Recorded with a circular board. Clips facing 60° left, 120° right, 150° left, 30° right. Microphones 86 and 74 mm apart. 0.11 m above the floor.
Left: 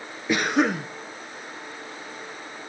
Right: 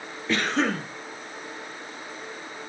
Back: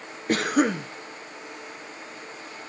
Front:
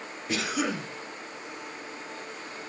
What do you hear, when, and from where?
0.3 s a cough: 130° left, 1.8 m